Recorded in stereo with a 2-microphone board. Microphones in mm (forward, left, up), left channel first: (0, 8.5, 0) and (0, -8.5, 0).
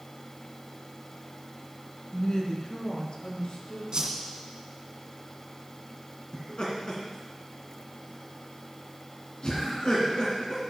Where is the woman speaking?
50° left (ahead or behind), 1.9 m; by 3.8 s 70° left (ahead or behind), 3 m.